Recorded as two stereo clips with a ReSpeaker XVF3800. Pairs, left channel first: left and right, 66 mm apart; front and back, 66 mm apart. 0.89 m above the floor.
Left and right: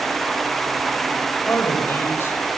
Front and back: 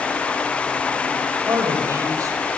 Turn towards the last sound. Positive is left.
turn(degrees=145)